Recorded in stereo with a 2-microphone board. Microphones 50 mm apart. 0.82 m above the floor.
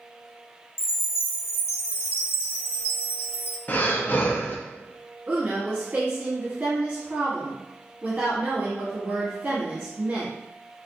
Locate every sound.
0.8 s a chime: 55° left (ahead or behind), 0.7 m
3.7 s breathing: 35° left (ahead or behind), 0.5 m
5.3 s a woman speaking: 35° right (ahead or behind), 1.4 m